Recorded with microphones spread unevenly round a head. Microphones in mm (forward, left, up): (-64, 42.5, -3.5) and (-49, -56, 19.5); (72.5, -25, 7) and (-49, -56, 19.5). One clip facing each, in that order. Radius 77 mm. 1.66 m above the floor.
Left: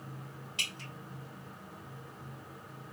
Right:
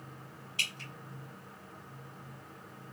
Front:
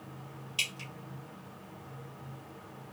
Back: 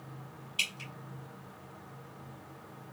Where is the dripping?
40° left, 1.9 m.